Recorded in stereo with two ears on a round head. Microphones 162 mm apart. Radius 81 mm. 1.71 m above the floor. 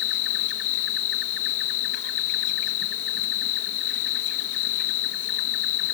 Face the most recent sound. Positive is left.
turn(degrees=70)  # may be behind; listen again after turning